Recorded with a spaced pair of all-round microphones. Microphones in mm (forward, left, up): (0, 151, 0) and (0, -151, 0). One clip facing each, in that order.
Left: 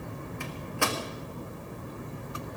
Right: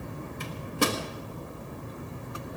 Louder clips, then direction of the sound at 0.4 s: Right 5 dB; 45° right (ahead or behind).